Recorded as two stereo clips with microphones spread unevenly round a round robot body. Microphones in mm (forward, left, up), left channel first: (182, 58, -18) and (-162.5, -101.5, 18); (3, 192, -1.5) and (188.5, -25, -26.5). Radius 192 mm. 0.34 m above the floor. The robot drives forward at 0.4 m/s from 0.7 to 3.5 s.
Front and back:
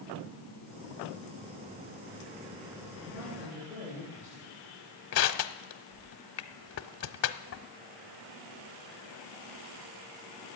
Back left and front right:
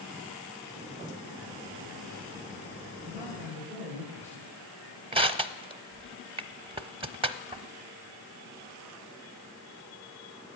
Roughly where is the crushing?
Ahead.